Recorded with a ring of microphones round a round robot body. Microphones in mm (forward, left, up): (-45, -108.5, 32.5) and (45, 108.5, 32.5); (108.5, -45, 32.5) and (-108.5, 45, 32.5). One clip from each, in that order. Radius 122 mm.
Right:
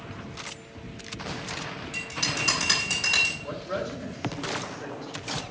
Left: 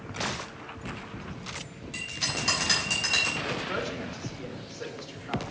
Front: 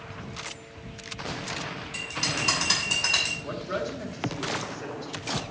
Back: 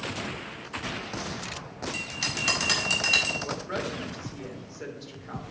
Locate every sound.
1.9 s a bell: 160° left, 4 m
3.4 s a woman speaking: 115° left, 2 m